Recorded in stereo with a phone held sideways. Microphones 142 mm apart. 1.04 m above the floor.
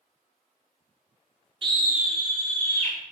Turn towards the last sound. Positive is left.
turn(degrees=20)  # may be behind; listen again after turning